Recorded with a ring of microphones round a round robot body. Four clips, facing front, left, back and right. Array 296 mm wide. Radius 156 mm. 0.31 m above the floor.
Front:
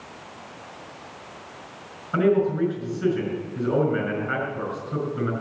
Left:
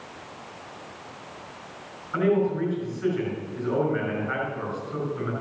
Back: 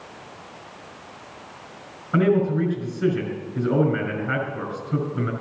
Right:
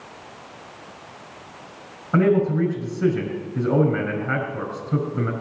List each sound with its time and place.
2.1 s a man speaking: 105° right, 5 m